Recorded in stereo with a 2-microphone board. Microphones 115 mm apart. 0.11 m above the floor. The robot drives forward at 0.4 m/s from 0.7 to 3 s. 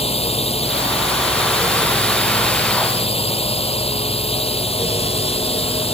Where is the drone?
60° left (ahead or behind).